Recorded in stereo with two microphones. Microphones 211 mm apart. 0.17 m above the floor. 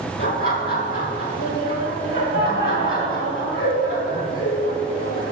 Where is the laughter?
70° left (ahead or behind), 4.5 m.